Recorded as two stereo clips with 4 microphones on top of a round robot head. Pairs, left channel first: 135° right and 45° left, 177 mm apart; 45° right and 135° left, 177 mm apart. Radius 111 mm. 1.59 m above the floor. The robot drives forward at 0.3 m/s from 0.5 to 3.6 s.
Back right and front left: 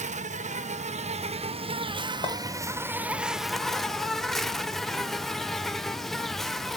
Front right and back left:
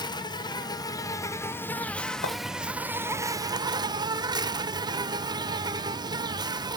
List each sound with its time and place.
0.0 s an insect: 15° left, 1.0 m; by 6.8 s 140° left, 0.7 m
2.2 s a clink: 75° right, 1.5 m